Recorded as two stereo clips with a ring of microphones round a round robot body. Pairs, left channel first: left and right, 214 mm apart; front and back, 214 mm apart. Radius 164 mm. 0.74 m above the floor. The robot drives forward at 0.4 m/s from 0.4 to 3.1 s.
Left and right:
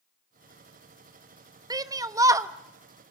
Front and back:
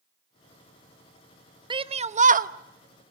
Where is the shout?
140° right, 0.8 m; by 2.5 s 160° right, 1.0 m.